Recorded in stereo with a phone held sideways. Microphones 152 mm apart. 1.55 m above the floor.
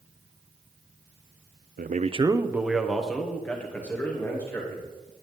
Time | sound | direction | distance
1.8 | a man speaking | 75° right (ahead or behind) | 0.5 m